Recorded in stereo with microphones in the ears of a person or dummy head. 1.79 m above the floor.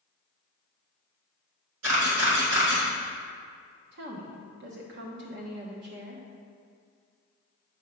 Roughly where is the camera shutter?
Right.